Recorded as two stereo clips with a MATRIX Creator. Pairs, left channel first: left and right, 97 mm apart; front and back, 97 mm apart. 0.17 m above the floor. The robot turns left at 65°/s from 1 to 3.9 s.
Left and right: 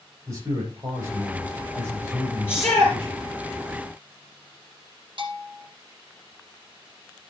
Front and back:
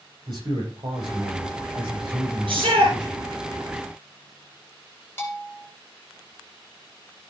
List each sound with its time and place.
0.3 s a man speaking: 145° right, 8 m; by 3.4 s 60° left, 8 m
2.5 s a shout: 155° left, 3 m; by 3.0 s 125° left, 3 m
5.2 s a bell: 65° right, 2.5 m